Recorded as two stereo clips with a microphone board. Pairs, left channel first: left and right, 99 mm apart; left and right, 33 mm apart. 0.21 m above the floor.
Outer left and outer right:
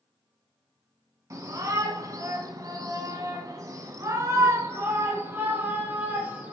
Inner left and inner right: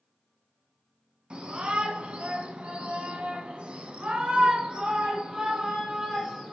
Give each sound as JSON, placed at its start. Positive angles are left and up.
{"t": 1.3, "sound": "a shout", "side_deg": -35, "distance_m": 1.9}